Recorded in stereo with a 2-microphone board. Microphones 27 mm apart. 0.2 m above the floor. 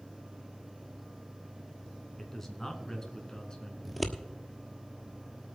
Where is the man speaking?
15° left (ahead or behind), 2.5 m; by 3.8 s 30° left (ahead or behind), 3 m.